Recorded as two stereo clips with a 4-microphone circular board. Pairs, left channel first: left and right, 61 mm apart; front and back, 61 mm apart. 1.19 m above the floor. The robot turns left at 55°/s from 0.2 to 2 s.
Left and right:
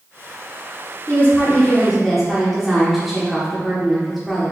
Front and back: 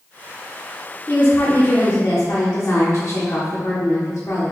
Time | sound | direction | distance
1.1 | a woman speaking | 50° left | 0.9 m